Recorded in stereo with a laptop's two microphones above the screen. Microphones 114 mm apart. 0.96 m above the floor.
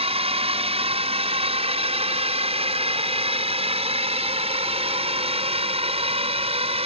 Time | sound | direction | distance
0.0 | a drone | 55° right (ahead or behind) | ?